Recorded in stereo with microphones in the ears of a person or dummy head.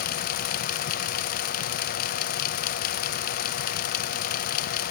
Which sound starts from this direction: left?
A fan, at 0.0 s.